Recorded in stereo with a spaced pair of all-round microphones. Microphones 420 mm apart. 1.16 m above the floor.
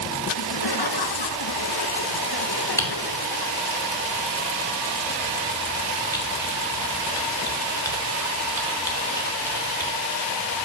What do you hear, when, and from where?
0.3 s laughter: 65° left (ahead or behind), 0.9 m
2.8 s typing on a keyboard: 10° left (ahead or behind), 3 m